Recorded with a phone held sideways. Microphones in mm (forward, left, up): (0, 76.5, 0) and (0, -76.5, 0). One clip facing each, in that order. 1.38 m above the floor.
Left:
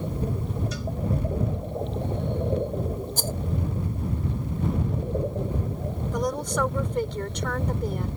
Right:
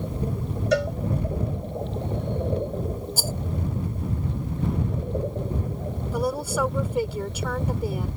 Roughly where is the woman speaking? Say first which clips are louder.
Right 1 dB; centre.